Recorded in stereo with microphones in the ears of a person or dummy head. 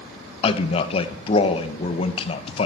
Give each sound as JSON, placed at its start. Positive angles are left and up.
{"t": 0.4, "sound": "a man speaking", "side_deg": 35, "distance_m": 0.8}